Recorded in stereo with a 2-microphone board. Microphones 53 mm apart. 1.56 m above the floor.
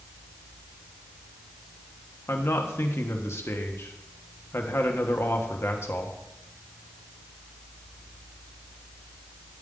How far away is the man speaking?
About 1.5 m.